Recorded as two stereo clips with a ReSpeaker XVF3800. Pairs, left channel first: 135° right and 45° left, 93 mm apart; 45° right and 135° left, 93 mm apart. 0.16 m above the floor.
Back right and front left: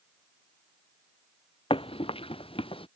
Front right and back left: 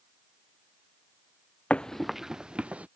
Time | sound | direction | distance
1.7 | running footsteps | 120° right | ?